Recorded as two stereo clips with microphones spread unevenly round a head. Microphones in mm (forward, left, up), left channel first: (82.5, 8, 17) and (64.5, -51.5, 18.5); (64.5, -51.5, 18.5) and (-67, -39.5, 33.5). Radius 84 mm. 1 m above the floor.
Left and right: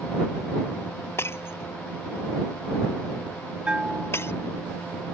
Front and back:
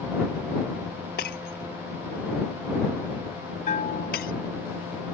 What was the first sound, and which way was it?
Breaking glass, 25° left.